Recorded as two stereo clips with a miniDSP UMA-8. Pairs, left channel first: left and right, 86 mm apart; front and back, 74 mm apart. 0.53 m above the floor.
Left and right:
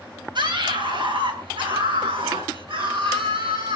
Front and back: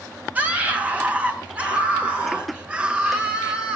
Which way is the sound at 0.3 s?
110° right.